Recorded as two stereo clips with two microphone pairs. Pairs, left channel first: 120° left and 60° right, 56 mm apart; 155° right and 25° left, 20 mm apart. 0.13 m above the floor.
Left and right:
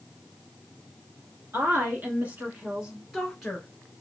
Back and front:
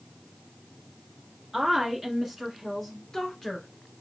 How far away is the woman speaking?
About 1.5 m.